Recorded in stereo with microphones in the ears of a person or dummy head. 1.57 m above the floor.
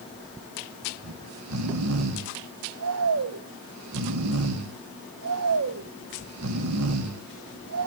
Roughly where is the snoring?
Right.